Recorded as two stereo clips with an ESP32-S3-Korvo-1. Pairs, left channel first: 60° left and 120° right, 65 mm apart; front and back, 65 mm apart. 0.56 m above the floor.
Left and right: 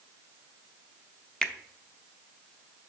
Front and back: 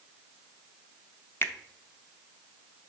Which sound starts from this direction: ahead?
A finger snap, at 1.4 s.